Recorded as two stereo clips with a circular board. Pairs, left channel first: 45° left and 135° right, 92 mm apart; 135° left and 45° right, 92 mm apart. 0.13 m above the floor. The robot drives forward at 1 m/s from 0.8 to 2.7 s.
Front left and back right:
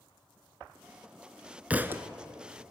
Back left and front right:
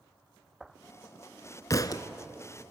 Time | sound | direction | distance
1.7 | a thud | 160° left | 0.7 m